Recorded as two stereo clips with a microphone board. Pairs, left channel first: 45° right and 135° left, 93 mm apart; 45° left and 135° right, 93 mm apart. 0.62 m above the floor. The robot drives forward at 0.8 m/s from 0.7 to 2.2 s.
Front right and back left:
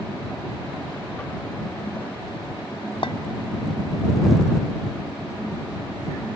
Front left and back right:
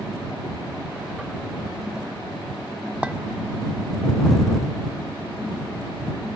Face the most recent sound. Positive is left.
turn(degrees=-60)